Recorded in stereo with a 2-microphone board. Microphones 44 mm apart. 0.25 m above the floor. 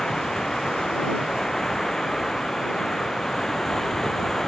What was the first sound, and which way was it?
Running water, 10° left (ahead or behind).